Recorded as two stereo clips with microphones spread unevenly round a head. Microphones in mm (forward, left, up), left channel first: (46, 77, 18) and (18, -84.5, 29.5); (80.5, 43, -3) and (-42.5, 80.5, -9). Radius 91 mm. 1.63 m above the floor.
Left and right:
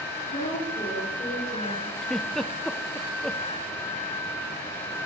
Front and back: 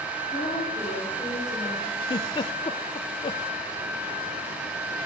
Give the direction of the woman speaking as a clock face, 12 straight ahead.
11 o'clock.